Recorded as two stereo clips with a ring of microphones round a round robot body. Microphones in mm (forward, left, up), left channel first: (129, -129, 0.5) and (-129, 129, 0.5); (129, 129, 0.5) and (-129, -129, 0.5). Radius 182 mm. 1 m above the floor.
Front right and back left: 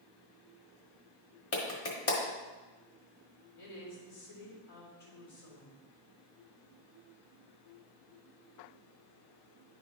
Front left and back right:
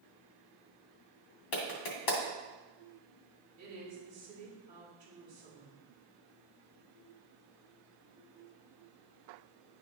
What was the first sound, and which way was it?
A clap, 10° left.